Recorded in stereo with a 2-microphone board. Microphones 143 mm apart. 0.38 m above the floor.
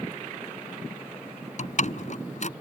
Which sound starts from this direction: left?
A door slam, at 1.6 s.